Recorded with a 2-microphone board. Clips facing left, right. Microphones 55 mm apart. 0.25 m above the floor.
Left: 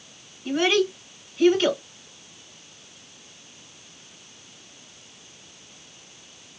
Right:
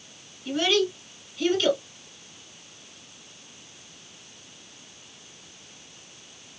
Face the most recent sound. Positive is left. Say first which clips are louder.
# left 2 dB
turn(degrees=30)  # may be behind; listen again after turning